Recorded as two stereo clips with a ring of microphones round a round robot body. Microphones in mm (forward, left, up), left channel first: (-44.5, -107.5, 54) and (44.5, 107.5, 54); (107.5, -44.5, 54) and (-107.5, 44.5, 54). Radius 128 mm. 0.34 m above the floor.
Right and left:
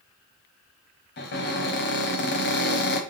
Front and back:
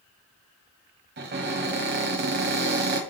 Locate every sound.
1.2 s a cupboard door: 155° right, 1.3 m